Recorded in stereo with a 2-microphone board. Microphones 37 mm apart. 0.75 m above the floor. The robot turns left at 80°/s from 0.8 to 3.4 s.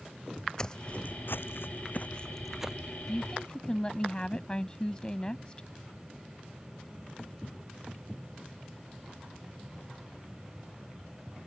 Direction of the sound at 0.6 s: 20° left (ahead or behind).